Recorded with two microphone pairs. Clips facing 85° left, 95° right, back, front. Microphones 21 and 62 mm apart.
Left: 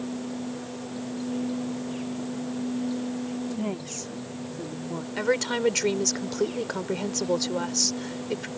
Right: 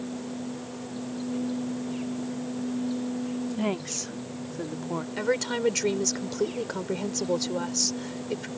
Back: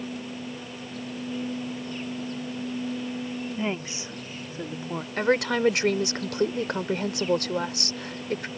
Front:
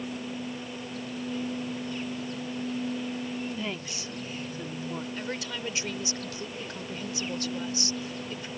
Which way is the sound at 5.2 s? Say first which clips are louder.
Left 2 dB, back 12 dB; 165° left.